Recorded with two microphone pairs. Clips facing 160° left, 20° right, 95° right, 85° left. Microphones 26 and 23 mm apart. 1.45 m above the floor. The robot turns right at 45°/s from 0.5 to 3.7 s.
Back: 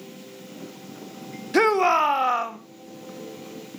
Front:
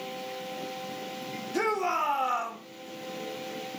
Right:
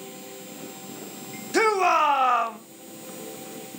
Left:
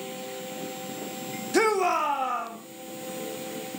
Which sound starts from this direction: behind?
A shout, at 1.5 s.